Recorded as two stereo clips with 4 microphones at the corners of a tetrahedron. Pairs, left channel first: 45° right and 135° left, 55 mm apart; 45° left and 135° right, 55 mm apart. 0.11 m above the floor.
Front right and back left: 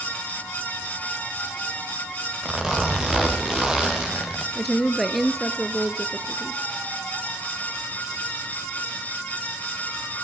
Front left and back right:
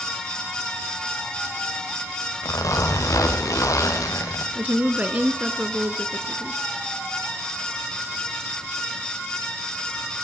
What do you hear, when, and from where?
2.4 s a zipper: 55° left, 4 m
4.5 s a woman speaking: 135° right, 1.2 m